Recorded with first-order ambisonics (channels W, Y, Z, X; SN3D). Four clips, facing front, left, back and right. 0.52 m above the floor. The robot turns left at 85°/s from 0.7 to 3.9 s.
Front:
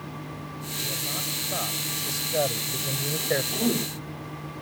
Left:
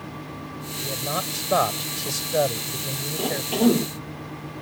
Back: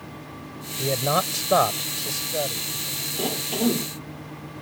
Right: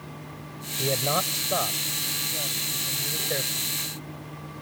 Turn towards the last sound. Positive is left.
turn(degrees=80)